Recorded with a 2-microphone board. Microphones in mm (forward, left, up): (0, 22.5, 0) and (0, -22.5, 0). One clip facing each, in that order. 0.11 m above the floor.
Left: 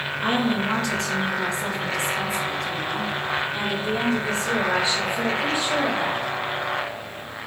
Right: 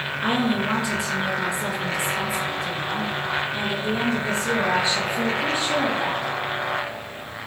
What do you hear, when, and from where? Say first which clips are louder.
0.2 s a woman speaking: even; 10° right (ahead or behind), 1.7 m; by 6.3 s 25° right (ahead or behind), 2.5 m